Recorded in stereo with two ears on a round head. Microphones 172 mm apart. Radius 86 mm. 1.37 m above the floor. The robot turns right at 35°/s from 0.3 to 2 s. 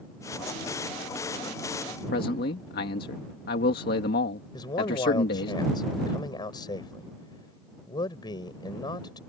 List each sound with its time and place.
2.1 s a man speaking: 50° left (ahead or behind)
4.5 s a man speaking: 25° left (ahead or behind)